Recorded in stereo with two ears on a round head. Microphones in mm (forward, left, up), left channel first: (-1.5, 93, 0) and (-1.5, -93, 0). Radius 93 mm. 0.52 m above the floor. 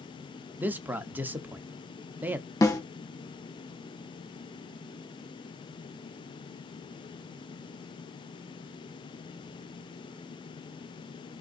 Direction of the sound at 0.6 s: 10° right (ahead or behind).